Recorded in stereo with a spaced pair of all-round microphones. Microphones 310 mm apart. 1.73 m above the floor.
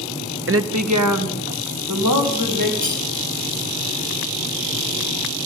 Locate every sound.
0.5 s a woman speaking: 40° right (ahead or behind), 0.6 m; by 2.7 s 85° right, 2.5 m
2.8 s cutlery clinking: 70° right (ahead or behind), 8 m